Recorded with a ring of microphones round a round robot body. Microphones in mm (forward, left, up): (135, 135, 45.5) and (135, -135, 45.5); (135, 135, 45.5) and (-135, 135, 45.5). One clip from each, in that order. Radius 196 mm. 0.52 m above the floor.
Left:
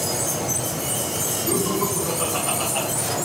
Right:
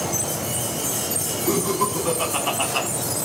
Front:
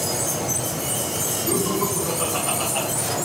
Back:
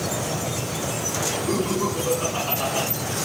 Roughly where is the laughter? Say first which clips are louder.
Right 3 dB, front 1 dB; right.